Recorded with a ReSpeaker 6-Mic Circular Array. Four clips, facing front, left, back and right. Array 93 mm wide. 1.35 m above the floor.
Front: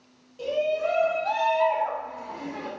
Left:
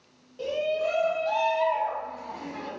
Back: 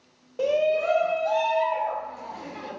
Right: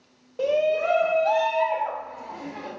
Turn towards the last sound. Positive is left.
turn(degrees=-30)